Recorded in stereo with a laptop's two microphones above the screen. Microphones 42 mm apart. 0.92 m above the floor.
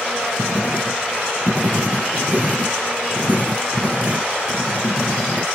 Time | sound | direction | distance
0.4 | writing | 40° right (ahead or behind) | ?